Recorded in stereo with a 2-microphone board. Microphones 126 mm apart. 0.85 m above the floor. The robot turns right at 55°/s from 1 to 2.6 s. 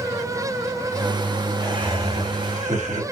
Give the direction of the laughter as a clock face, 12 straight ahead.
5 o'clock.